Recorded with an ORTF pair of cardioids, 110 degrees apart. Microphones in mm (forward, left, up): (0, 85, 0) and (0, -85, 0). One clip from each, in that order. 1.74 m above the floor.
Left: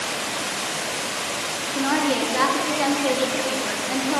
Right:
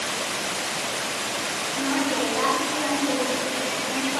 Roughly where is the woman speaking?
Left.